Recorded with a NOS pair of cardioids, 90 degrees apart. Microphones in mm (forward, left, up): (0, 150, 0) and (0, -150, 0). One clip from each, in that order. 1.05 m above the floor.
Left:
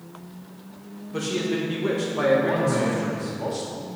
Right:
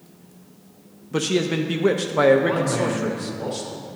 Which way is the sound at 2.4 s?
15° right.